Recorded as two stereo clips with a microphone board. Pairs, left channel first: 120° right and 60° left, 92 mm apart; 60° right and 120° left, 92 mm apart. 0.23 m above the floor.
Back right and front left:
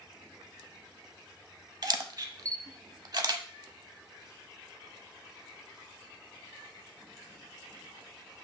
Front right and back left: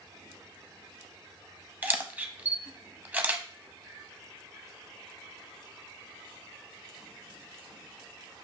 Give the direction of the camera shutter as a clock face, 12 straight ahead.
10 o'clock.